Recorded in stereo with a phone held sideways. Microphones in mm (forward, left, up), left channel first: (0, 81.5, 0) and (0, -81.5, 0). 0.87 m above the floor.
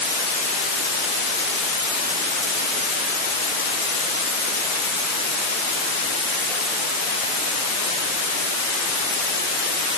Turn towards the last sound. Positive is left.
No sound to turn to.